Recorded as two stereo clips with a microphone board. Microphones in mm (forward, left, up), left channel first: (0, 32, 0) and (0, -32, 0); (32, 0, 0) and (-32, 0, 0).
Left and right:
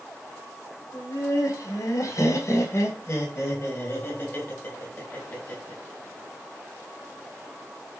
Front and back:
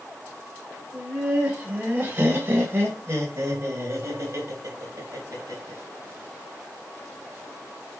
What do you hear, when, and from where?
0.9 s laughter: 110° left, 2.5 m; by 5.8 s 150° left, 4 m